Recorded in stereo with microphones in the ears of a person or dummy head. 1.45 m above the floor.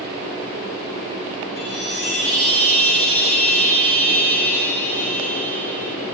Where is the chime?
60° left (ahead or behind), 0.7 m.